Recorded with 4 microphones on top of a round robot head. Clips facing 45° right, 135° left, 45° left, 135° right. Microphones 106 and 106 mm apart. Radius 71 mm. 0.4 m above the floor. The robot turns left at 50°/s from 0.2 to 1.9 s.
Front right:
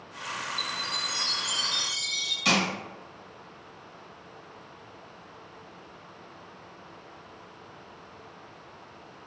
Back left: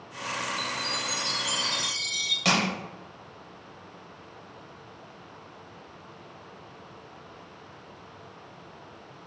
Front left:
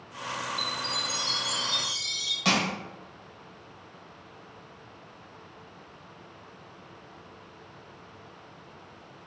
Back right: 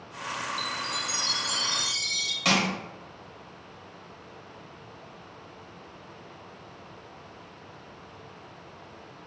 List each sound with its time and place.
0.6 s a chime: 110° right, 1.1 m; by 2.4 s 175° right, 1.1 m
2.5 s crushing: 145° left, 2.0 m